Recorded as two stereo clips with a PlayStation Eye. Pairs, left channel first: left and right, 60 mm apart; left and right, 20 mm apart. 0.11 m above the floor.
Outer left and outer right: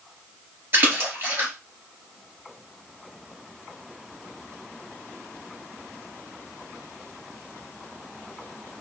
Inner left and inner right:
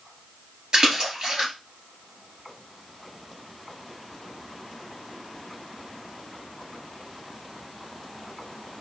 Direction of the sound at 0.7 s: 40° right (ahead or behind).